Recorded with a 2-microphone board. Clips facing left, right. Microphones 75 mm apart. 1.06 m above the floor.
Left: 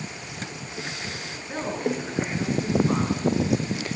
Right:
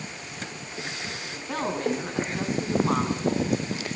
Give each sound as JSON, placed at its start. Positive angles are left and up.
{"t": 1.3, "sound": "a woman speaking", "side_deg": -80, "distance_m": 9.0}